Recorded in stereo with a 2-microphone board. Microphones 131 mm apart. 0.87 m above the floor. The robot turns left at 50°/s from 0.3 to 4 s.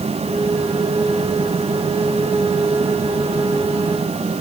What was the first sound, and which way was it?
Only background noise.